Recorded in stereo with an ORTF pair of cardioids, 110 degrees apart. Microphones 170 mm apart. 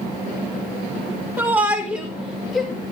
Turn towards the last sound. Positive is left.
turn(degrees=0)